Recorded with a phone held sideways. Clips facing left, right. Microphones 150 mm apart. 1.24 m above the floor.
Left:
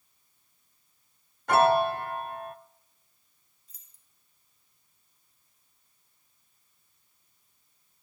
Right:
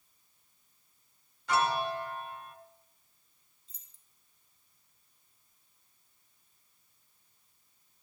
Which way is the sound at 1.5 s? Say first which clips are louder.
Left 8 dB; 55° left (ahead or behind).